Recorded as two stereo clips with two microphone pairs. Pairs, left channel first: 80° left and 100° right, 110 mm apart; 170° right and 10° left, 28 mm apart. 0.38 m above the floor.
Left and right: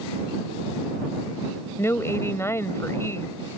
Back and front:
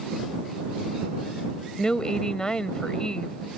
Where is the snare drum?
No snare drum in this recording.